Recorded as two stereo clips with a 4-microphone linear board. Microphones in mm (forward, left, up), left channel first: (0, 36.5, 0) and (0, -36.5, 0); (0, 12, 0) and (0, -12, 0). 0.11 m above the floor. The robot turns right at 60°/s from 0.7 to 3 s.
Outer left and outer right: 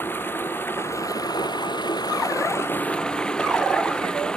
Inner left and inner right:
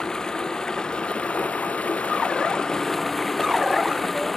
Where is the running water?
30° left; by 4.4 s 170° left.